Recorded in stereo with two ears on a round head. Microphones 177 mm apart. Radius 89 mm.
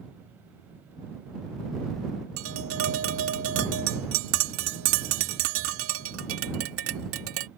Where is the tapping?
80° right.